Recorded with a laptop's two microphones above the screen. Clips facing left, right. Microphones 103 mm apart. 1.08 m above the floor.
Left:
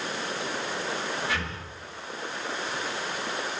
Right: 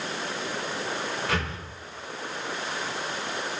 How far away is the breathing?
About 3 m.